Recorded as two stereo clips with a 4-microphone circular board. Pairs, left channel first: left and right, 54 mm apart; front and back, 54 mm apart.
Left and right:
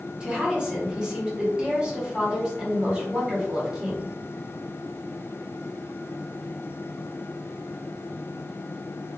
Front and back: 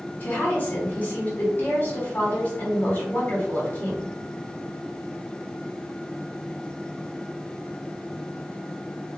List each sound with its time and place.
0.2 s a woman speaking: 25° right, 1.1 m